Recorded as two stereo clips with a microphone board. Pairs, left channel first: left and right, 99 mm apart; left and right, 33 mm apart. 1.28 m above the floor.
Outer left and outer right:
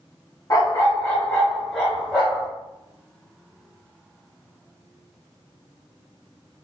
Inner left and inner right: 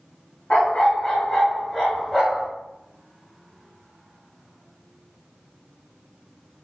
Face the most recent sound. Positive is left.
turn(degrees=-20)  # may be behind; listen again after turning